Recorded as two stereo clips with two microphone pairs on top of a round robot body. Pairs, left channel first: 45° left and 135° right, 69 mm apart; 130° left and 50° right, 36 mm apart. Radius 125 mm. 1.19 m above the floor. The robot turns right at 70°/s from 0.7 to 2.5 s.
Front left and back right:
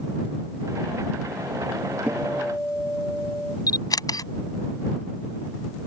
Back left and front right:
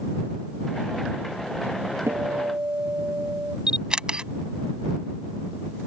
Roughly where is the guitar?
Ahead right.